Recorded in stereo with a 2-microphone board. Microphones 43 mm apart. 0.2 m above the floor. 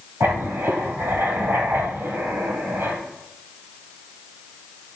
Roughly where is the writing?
Right.